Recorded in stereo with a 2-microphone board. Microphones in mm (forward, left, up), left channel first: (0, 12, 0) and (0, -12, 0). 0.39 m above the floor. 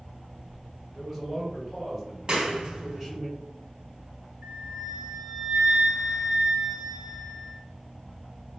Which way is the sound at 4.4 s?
45° right (ahead or behind).